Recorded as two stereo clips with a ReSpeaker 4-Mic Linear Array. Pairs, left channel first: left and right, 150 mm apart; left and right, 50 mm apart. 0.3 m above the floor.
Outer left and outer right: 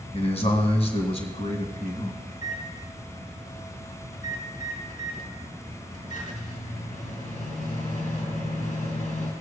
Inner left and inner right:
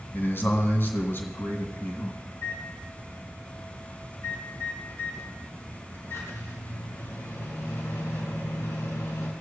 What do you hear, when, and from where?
0.1 s a man speaking: 50° left (ahead or behind), 2 m
2.3 s a microwave: 65° left (ahead or behind), 3 m